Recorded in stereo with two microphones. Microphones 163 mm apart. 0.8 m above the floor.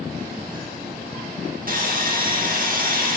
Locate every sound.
1.7 s sawing: 55° right (ahead or behind), 1.4 m